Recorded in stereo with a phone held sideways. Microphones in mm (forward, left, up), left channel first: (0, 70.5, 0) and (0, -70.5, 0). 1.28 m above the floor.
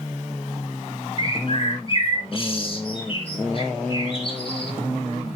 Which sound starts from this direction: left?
A bird, at 1.2 s.